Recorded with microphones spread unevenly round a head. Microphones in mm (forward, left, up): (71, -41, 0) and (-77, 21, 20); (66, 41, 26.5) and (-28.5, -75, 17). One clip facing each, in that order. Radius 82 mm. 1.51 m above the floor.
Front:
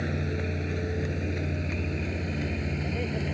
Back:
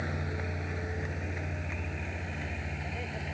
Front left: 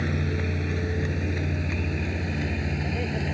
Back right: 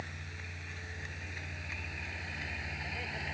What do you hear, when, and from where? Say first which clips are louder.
0.0 s a vehicle: front 6 dB, front left 20 dB; 35° left; by 3.4 s 15° left